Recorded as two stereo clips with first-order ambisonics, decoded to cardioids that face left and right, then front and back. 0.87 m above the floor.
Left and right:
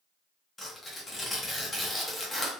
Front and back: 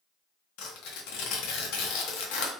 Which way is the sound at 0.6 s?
10° left.